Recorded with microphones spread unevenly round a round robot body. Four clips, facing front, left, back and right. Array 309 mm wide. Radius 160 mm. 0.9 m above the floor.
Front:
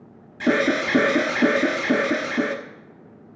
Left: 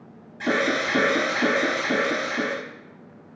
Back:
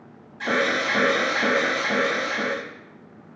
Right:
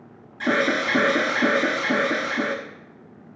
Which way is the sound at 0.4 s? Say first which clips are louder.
Right 1 dB, front 3 dB; 5° right.